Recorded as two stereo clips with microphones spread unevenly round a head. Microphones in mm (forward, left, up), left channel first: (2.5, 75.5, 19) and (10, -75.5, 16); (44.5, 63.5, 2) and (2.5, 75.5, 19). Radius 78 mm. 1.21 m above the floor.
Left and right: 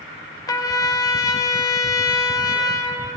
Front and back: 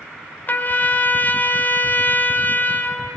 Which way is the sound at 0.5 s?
25° left.